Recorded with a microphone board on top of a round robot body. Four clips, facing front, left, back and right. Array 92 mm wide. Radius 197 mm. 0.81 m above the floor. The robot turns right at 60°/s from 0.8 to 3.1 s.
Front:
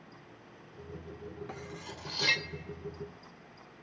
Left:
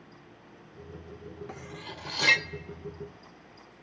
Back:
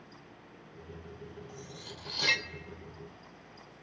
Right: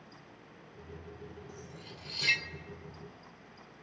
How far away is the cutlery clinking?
About 1.0 m.